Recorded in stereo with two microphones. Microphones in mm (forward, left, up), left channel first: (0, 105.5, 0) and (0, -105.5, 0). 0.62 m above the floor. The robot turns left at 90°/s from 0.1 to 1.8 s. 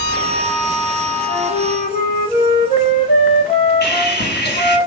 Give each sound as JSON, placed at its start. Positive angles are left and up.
{"t": 1.3, "sound": "a flute", "azimuth_deg": 80, "distance_m": 8.0}
{"t": 3.8, "sound": "sawing", "side_deg": 50, "distance_m": 4.5}